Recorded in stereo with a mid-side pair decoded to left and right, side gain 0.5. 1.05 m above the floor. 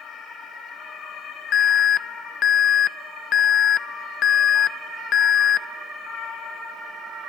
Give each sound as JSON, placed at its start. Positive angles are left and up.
{"t": 1.5, "sound": "an alarm", "azimuth_deg": 65, "distance_m": 0.5}